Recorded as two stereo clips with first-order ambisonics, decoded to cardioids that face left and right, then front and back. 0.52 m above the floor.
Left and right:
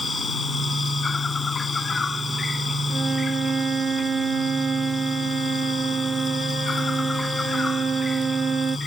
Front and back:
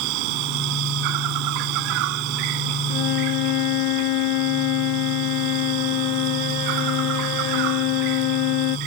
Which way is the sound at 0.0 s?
165° left.